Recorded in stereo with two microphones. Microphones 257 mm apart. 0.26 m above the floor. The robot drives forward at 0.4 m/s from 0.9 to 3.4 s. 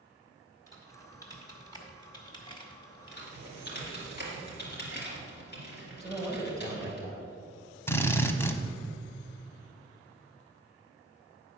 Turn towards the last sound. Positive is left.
turn(degrees=10)  # may be behind; listen again after turning